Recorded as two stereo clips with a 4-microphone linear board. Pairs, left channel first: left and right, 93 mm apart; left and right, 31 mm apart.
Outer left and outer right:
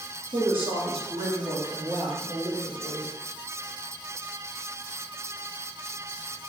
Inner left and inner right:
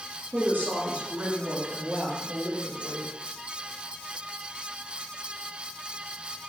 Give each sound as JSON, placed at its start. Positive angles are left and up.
{"t": 0.3, "sound": "a woman speaking", "side_deg": -70, "distance_m": 1.8}